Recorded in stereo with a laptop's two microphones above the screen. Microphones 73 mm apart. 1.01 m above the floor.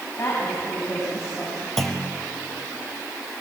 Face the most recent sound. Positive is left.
turn(degrees=5)  # may be behind; listen again after turning